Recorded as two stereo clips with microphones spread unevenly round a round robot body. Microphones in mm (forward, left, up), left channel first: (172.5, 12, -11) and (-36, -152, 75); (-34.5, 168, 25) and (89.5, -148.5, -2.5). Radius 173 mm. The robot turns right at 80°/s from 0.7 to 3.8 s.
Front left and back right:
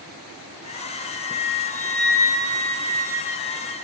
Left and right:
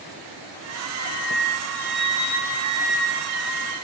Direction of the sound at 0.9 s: 15° right.